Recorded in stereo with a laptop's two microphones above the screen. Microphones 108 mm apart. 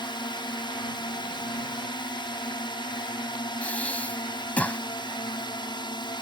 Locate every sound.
0.0 s a drone: 45° left (ahead or behind)
3.6 s breathing: 10° left (ahead or behind)